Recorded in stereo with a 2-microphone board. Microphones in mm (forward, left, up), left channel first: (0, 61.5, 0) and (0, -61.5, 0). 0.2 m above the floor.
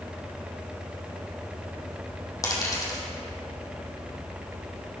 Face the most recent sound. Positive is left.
turn(degrees=30)  # may be behind; listen again after turning